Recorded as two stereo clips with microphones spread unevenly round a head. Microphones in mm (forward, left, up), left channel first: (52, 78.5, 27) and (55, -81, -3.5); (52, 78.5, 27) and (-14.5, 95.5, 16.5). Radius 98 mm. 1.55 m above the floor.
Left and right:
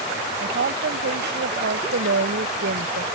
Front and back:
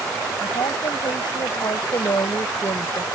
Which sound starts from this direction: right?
A woman speaking, at 0.4 s.